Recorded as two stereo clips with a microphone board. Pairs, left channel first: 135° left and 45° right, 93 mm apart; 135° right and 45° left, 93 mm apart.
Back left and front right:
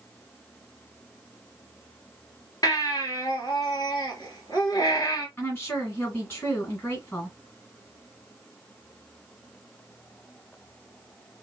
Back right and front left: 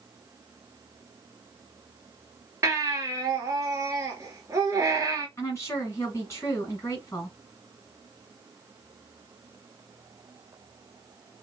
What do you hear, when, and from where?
2.6 s a baby crying: 95° left, 1.5 m
5.4 s a woman speaking: 175° right, 1.9 m